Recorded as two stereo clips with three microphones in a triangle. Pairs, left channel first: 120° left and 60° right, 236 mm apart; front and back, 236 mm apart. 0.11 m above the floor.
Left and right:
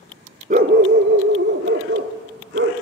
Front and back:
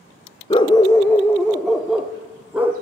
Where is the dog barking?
50° right, 0.6 m; by 2.7 s 95° right, 2.0 m.